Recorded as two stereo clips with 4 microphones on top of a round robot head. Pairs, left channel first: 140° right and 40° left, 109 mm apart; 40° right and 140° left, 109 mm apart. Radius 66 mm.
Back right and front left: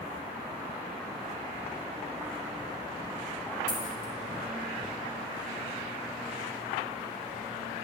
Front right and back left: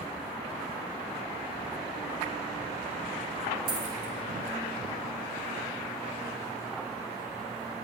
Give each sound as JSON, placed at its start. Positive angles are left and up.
{"t": 3.7, "sound": "a dropped coin", "azimuth_deg": 180, "distance_m": 1.7}